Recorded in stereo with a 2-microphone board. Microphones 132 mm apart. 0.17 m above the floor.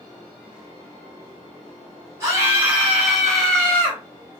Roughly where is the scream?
Right.